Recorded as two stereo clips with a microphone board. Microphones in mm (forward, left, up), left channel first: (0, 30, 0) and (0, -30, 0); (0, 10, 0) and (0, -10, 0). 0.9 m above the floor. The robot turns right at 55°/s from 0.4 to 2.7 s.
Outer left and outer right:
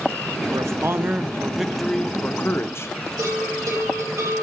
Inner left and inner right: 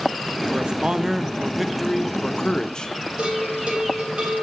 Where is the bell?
55° right (ahead or behind), 3.5 m.